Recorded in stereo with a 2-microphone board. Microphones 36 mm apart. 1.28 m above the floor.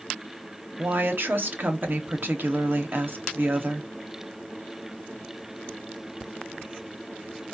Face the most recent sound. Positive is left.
turn(degrees=-65)  # may be behind; listen again after turning